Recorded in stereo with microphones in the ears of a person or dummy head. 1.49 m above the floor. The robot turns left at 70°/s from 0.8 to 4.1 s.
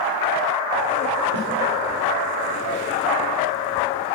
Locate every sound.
1.3 s a snare drum: 80° right, 4 m; by 1.5 s 85° right, 4 m